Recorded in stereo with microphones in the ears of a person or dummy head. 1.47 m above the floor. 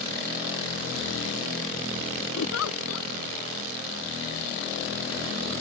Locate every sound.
2.4 s a giggle: 85° left